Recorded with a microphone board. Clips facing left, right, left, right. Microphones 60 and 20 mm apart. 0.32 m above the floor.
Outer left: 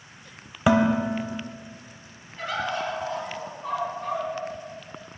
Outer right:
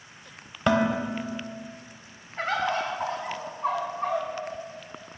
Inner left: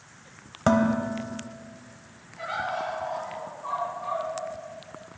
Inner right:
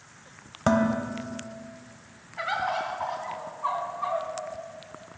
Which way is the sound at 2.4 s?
45° right (ahead or behind).